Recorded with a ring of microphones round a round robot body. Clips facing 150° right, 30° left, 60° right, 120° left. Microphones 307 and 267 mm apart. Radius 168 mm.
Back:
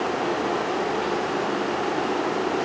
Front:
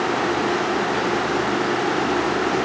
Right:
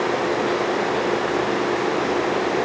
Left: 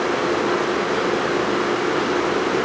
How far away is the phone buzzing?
No phone buzzing in this recording.